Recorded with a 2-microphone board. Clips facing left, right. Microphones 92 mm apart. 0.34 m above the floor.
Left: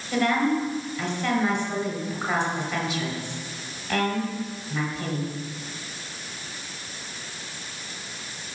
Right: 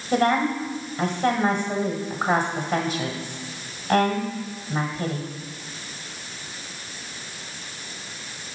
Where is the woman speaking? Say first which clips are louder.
Right 2 dB; 45° right (ahead or behind), 1.4 m.